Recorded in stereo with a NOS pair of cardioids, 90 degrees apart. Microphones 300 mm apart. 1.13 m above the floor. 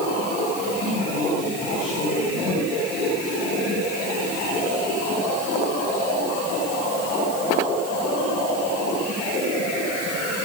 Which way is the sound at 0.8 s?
70° left.